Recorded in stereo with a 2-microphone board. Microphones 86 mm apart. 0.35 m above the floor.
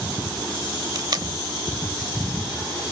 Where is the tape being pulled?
55° right (ahead or behind).